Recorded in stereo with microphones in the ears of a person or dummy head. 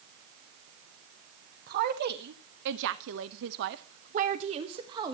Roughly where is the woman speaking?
Right.